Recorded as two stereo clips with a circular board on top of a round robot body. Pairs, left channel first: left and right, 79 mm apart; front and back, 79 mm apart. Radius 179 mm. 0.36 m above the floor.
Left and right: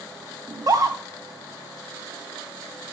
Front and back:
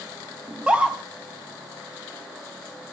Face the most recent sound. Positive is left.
turn(degrees=-110)